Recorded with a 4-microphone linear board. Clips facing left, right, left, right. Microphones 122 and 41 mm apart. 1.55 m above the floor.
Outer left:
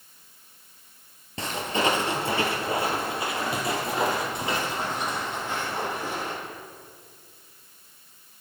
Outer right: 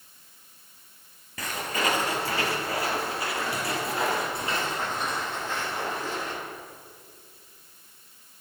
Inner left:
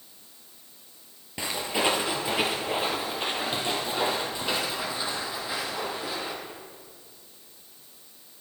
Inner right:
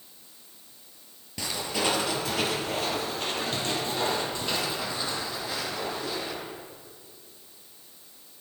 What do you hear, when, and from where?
1.4 s footsteps: 25° left (ahead or behind), 2 m; by 6.3 s 15° left (ahead or behind), 4 m